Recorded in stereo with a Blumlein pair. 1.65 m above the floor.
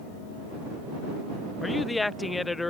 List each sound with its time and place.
1.6 s a woman speaking: 10° left